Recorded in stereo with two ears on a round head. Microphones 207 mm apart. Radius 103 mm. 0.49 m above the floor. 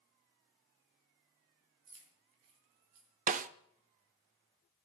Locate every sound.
1.9 s keys jangling: 65° right (ahead or behind), 3 m; by 3.1 s 80° right, 3.5 m
3.3 s a snare drum: 35° right (ahead or behind), 0.6 m